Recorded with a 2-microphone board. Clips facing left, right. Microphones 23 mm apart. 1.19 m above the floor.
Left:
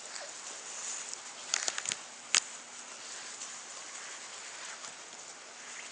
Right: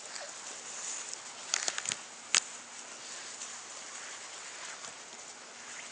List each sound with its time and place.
Only background noise.